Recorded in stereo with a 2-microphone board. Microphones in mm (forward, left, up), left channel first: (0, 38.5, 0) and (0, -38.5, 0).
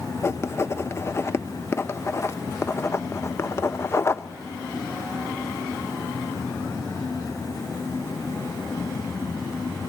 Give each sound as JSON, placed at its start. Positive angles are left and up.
{"t": 0.2, "sound": "writing", "side_deg": 30, "distance_m": 0.7}